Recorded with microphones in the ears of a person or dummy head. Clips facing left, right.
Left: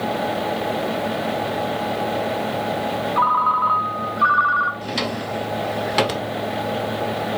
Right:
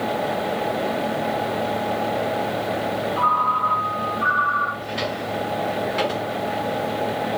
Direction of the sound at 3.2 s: 65° left (ahead or behind).